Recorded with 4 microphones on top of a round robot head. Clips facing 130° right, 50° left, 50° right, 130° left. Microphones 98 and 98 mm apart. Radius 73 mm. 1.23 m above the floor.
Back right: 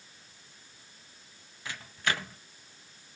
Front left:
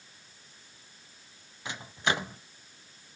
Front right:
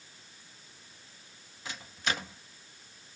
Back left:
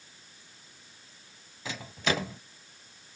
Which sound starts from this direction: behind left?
A microwave, at 1.6 s.